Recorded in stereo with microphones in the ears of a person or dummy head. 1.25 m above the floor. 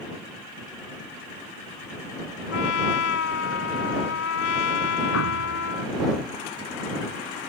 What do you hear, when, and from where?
2.5 s a trumpet: 65° left (ahead or behind)
5.1 s a thud: 80° left